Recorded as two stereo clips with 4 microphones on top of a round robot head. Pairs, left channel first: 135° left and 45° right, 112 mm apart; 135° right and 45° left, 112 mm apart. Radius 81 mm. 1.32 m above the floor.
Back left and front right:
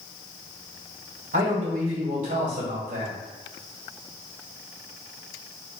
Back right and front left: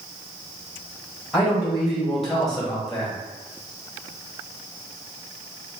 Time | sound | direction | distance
1.3 | a man speaking | 45° right | 1.5 m